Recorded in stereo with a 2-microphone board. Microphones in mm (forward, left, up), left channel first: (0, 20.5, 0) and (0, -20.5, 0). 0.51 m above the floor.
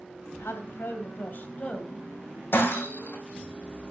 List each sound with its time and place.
0.3 s a woman speaking: 75° left (ahead or behind), 2.5 m; by 2.4 s 20° left (ahead or behind), 3 m
2.5 s breaking glass: 60° left (ahead or behind), 3 m